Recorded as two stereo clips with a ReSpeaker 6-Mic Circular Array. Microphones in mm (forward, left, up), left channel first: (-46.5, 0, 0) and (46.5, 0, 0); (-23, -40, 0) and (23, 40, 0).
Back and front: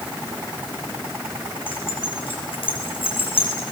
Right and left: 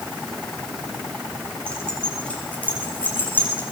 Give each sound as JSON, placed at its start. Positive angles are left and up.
{"t": 1.7, "sound": "keys jangling", "azimuth_deg": 160, "distance_m": 8.0}